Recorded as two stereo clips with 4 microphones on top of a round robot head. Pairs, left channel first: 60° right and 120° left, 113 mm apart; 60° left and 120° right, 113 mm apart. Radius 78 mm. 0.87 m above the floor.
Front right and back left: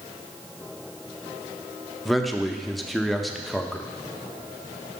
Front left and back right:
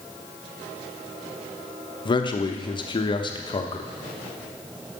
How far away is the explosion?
I don't hear an explosion.